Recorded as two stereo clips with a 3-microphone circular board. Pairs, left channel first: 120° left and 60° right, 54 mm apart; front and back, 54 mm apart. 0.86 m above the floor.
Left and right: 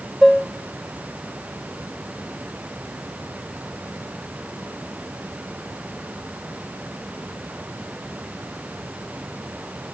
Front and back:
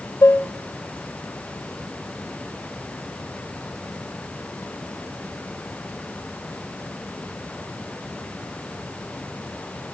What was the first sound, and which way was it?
Dishes clattering, 30° left.